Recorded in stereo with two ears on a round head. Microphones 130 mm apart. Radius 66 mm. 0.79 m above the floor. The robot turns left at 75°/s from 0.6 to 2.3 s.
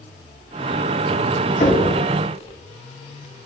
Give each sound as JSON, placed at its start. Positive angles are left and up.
{"t": 1.6, "sound": "knocking", "side_deg": 60, "distance_m": 4.5}